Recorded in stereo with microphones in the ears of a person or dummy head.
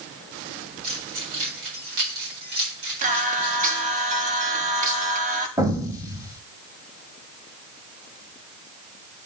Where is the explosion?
25° right (ahead or behind), 1.7 m.